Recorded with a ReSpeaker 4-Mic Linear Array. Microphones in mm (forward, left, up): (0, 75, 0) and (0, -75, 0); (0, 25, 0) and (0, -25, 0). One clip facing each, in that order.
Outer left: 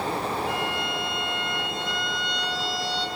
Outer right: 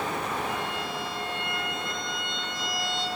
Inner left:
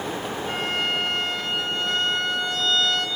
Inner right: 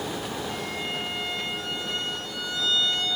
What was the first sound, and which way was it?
A violin, 65° left (ahead or behind).